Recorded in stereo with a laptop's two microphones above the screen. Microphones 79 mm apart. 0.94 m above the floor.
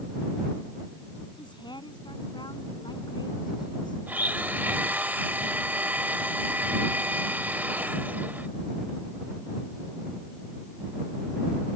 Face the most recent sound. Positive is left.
turn(degrees=-25)  # may be behind; listen again after turning